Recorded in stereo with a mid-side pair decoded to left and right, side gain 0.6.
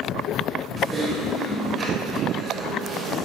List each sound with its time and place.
0.8 s typing on a keyboard: 35° right, 6.5 m